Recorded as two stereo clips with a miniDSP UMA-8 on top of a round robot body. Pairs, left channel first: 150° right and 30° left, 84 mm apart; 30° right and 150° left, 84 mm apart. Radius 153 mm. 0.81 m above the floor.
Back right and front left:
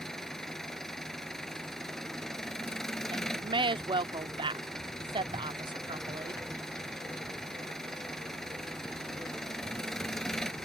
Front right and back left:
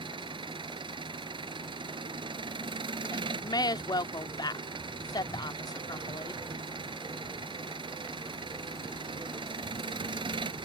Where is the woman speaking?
10° left.